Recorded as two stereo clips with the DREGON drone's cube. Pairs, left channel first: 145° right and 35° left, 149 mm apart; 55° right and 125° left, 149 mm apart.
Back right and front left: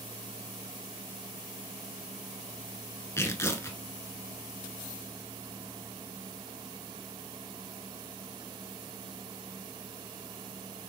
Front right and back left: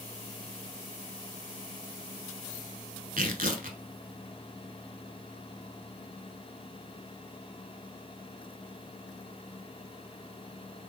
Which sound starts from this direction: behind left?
Tearing paper, at 3.2 s.